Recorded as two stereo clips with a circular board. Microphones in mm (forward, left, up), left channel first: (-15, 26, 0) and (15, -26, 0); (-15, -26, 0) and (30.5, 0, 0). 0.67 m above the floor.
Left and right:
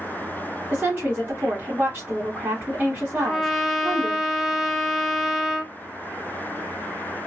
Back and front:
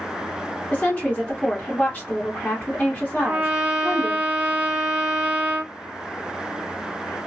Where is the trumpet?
30° left, 0.7 m.